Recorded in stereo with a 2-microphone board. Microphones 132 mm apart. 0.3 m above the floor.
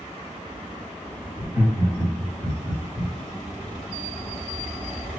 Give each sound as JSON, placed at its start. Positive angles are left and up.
{"t": 1.4, "sound": "laughter", "side_deg": -20, "distance_m": 1.3}